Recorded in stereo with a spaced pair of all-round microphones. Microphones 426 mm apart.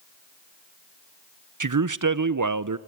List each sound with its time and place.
1.6 s a man speaking: 50° right (ahead or behind), 0.6 m